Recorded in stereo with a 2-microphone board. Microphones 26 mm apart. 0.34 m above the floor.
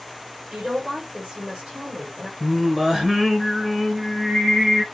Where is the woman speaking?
45° right (ahead or behind), 1.2 m.